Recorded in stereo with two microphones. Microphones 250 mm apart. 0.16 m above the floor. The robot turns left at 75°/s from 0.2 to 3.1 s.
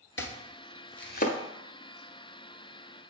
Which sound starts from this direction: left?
Chopping, at 0.2 s.